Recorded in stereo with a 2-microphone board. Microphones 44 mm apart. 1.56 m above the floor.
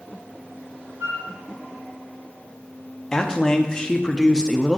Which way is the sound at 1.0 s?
65° right (ahead or behind).